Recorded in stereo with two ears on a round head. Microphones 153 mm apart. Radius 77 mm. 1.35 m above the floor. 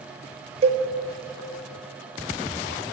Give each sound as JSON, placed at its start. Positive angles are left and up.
{"t": 0.6, "sound": "a cowbell", "side_deg": -35, "distance_m": 1.1}